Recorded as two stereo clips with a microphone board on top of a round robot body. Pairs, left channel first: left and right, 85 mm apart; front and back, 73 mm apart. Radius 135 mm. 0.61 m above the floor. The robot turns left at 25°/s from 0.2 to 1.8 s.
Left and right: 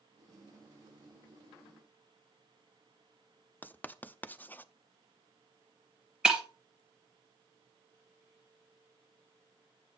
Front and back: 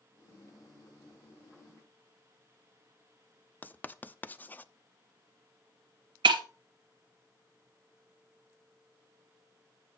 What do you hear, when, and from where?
3.6 s writing: 40° left, 0.6 m
6.2 s breaking glass: 170° right, 0.7 m